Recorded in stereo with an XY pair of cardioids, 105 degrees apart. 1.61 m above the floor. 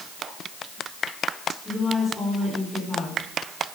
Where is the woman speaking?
15° left, 5 m.